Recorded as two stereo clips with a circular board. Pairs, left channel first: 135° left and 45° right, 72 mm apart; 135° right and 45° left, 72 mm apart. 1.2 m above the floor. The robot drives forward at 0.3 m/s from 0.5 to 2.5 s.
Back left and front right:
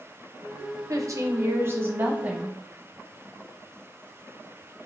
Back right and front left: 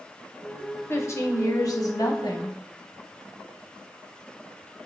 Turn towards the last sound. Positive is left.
turn(degrees=-115)